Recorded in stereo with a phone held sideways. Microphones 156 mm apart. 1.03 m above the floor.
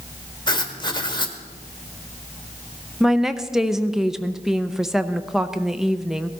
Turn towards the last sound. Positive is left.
turn(degrees=0)  # may be behind; listen again after turning